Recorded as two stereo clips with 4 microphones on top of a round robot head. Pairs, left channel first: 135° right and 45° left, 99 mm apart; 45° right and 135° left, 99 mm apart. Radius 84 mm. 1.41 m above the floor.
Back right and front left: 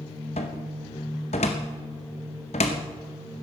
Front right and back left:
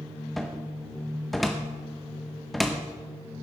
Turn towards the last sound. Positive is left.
turn(degrees=-135)